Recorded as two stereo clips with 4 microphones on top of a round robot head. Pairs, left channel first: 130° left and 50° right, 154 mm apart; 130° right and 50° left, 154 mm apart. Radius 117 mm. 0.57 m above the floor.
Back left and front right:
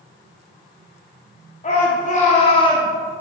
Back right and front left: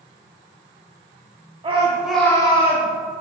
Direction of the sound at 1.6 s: 100° left.